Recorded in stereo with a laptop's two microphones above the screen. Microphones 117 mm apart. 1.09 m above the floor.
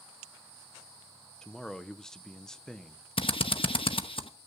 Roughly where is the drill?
Left.